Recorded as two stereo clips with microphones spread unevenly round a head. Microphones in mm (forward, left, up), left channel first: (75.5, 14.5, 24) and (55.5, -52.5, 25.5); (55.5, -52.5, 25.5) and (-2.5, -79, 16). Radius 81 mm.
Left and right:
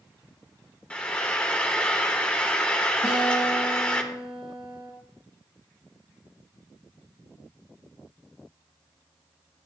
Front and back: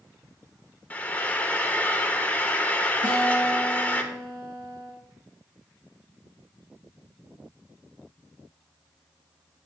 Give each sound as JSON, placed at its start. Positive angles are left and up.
{"t": 0.9, "sound": "frying", "azimuth_deg": 10, "distance_m": 1.3}
{"t": 3.0, "sound": "a guitar", "azimuth_deg": 165, "distance_m": 3.5}